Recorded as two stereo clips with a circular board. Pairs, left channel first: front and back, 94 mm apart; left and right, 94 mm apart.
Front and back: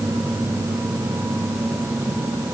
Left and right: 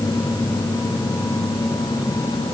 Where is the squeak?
No squeak in this recording.